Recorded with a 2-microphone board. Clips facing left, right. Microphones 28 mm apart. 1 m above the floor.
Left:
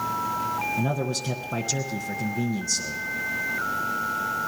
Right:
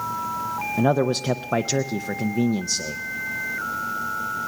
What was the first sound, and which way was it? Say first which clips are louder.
A man speaking: right 6 dB; 45° right (ahead or behind).